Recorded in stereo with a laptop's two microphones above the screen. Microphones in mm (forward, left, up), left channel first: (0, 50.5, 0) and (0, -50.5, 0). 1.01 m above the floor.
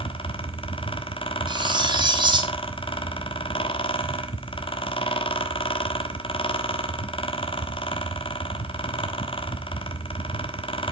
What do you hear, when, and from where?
0.0 s a fan: 60° left (ahead or behind), 1.0 m
1.5 s cutlery clinking: 50° right (ahead or behind), 1.0 m